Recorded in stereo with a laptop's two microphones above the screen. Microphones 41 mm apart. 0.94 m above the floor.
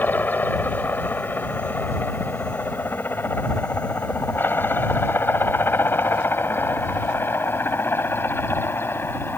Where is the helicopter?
45° left (ahead or behind); by 9.4 s 65° left (ahead or behind).